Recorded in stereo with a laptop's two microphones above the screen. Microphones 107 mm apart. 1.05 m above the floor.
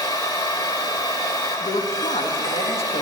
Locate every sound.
0.0 s a machine running: 35° left (ahead or behind), 1.2 m
1.6 s a man speaking: 70° left (ahead or behind), 1.5 m